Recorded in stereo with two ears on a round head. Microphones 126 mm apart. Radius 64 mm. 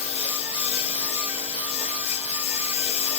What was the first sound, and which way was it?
A lawn mower, 45° left (ahead or behind).